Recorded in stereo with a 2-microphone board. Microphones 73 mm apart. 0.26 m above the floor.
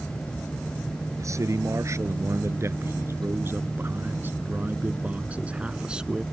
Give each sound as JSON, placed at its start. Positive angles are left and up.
{"t": 1.2, "sound": "a man speaking", "side_deg": -45}